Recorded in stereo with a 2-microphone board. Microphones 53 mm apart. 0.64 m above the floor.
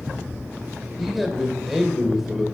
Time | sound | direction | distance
1.0 | a man speaking | centre (ahead or behind) | 2.5 m